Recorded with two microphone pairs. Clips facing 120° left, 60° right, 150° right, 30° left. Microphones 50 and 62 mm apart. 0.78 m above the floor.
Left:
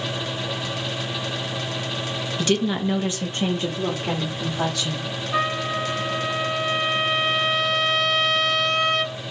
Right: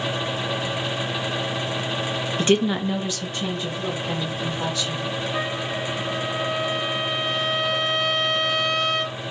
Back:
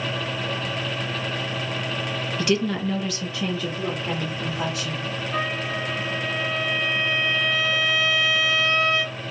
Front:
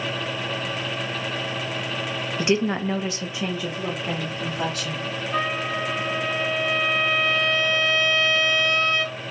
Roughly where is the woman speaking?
Ahead right.